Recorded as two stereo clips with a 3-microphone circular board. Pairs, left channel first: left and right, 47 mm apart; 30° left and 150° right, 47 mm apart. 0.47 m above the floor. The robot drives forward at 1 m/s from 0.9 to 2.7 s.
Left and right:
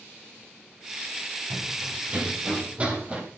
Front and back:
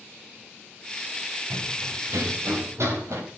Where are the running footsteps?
150° right, 8 m; by 3.2 s 155° right, 6 m.